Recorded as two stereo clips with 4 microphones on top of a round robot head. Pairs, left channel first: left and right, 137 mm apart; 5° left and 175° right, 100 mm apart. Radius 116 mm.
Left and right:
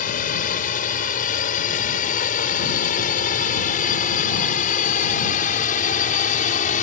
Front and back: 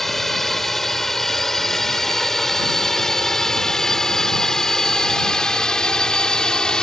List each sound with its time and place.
0.0 s a drone: 90° left; by 6.8 s 85° left